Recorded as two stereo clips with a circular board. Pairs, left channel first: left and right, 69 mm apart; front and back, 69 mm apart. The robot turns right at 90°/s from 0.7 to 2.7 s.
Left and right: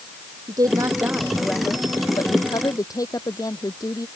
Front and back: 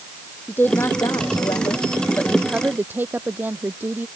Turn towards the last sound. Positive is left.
turn(degrees=120)